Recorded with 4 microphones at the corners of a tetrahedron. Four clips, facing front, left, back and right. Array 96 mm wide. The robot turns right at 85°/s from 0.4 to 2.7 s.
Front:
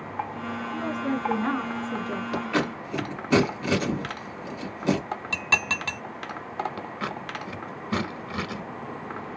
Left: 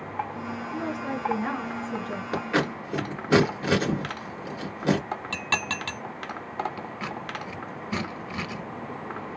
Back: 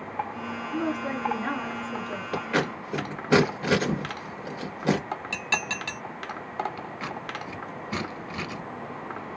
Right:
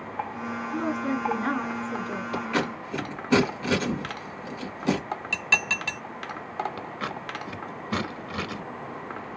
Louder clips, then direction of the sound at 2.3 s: Left 2 dB, back 1 dB; 105° left.